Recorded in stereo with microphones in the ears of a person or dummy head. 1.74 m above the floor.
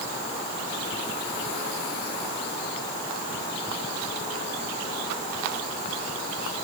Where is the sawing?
I don't hear sawing.